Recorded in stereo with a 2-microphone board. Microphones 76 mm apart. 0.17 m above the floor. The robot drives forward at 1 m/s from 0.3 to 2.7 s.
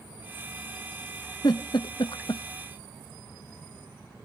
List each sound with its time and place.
1.4 s a giggle: 60° left (ahead or behind), 1.2 m; by 2.4 s 70° left (ahead or behind), 1.1 m